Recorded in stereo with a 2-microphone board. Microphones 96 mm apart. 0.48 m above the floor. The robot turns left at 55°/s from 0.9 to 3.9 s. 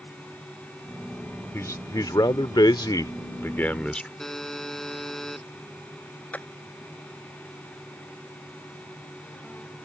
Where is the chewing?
I don't hear chewing.